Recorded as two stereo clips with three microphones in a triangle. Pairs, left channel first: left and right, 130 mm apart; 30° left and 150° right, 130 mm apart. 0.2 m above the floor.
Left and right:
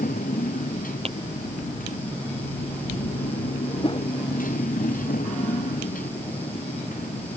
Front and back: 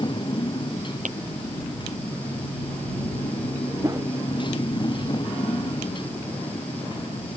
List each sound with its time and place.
0.0 s a motorcycle: 85° left
1.1 s tapping: 130° right
3.8 s a whoosh: 145° left